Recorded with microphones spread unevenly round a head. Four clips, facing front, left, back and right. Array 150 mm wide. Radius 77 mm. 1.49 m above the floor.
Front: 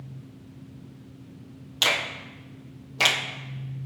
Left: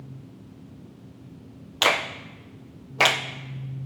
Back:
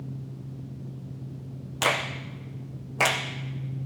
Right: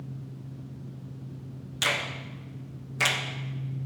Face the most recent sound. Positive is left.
turn(degrees=100)